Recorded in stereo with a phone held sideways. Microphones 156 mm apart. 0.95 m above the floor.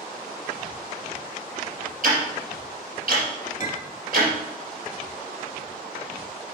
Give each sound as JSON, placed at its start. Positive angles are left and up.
{"t": 2.0, "sound": "ticking", "side_deg": -60, "distance_m": 4.0}
{"t": 3.6, "sound": "a clink", "side_deg": 55, "distance_m": 1.3}